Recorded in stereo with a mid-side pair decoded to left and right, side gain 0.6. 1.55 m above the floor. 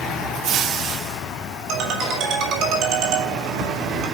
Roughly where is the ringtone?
Right.